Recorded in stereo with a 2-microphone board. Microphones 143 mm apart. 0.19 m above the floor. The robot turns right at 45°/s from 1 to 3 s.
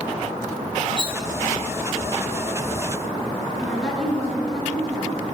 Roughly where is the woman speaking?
Centre.